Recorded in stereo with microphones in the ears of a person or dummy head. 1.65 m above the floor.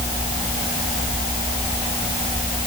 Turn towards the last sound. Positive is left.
No sound to turn to.